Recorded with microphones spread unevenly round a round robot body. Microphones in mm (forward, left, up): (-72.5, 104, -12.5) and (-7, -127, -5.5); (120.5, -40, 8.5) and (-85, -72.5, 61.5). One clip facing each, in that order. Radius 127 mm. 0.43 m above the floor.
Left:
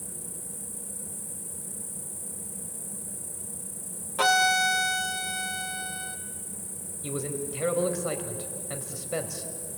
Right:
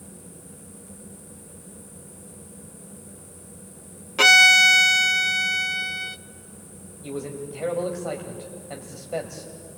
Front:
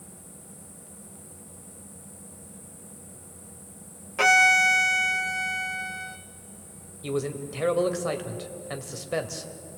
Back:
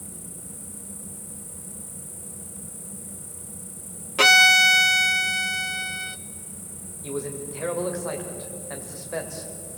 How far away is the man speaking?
About 1.8 m.